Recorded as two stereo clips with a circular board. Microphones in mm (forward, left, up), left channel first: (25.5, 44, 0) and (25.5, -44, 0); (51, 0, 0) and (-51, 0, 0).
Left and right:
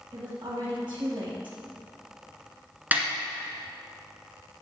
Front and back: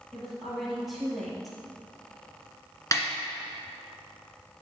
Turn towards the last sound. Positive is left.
turn(degrees=-30)